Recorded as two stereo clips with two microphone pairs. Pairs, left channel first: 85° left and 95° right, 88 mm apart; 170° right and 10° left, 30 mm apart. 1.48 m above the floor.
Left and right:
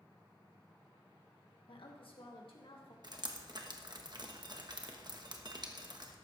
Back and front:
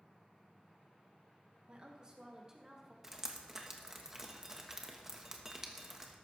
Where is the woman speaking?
65° left, 1.6 m; by 2.9 s 85° left, 2.5 m.